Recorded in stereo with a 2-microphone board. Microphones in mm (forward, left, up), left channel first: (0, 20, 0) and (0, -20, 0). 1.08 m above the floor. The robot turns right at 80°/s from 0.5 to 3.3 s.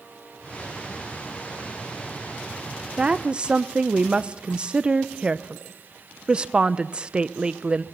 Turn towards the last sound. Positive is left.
turn(degrees=-25)  # may be behind; listen again after turning